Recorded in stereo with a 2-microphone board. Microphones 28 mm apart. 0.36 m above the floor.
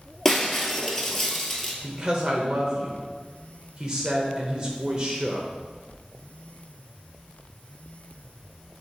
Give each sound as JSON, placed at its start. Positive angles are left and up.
{"t": 0.2, "sound": "breaking glass", "side_deg": 10, "distance_m": 1.0}
{"t": 1.8, "sound": "a woman speaking", "side_deg": -20, "distance_m": 0.8}